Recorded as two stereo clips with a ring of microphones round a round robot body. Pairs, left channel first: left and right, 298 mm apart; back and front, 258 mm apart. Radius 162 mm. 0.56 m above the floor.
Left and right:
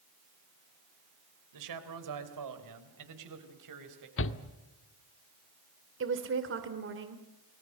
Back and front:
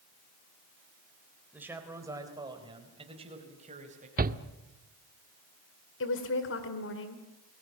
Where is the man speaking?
85° right, 3 m; by 4.1 s 65° right, 4 m.